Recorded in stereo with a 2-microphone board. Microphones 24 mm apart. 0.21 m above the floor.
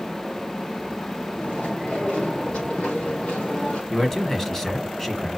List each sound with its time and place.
1.4 s chewing: 55° left (ahead or behind), 4.5 m
3.9 s a man speaking: 15° left (ahead or behind), 1.4 m